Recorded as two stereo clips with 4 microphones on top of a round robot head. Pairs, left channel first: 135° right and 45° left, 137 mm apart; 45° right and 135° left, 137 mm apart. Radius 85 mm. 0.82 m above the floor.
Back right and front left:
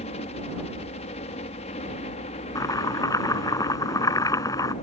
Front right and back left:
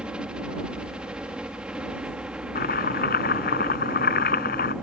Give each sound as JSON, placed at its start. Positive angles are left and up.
{"t": 0.0, "sound": "a helicopter", "azimuth_deg": -145}
{"t": 2.5, "sound": "chopping", "azimuth_deg": -70}